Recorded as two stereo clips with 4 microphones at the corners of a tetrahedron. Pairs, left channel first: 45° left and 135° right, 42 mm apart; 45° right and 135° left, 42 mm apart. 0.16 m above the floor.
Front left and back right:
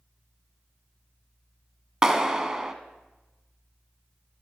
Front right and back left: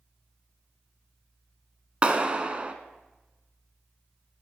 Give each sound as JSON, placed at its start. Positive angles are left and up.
{"t": 2.0, "sound": "a clap", "azimuth_deg": 165, "distance_m": 1.1}